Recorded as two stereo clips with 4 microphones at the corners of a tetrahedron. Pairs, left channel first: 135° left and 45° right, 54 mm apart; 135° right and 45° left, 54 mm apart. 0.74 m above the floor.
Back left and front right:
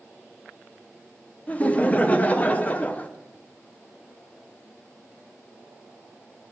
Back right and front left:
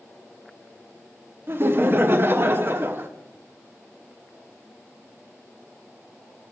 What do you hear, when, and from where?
1.5 s laughter: 85° left, 0.7 m